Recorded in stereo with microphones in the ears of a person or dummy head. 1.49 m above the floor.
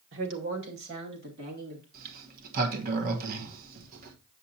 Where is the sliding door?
45° right (ahead or behind), 1.2 m.